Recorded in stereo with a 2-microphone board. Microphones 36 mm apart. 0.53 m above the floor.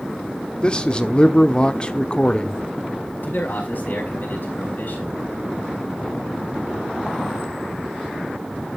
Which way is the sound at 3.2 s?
60° left (ahead or behind).